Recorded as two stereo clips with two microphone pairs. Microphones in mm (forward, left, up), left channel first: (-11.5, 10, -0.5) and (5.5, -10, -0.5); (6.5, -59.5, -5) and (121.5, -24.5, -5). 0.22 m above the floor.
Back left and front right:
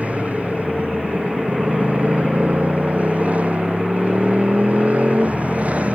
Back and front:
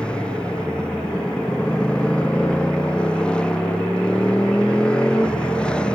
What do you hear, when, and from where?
0.0 s a motorcycle: 80° right